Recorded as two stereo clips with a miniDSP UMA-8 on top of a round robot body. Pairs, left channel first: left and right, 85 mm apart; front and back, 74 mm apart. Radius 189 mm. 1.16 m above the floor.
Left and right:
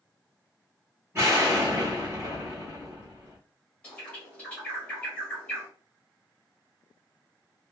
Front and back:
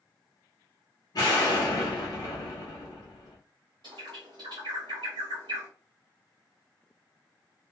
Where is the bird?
170° left, 0.9 m.